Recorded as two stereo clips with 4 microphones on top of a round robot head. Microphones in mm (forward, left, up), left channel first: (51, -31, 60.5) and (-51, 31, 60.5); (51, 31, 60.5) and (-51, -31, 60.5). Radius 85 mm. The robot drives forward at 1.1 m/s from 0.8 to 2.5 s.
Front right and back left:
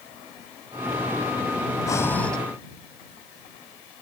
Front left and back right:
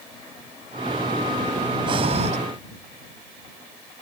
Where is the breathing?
95° right; by 2.4 s 115° right.